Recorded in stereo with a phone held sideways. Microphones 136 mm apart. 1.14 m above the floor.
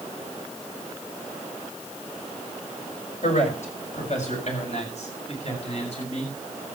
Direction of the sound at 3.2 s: 65° left (ahead or behind).